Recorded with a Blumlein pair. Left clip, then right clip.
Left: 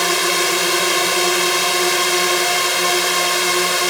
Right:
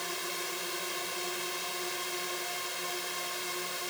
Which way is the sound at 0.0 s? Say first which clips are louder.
Left 19 dB; 50° left.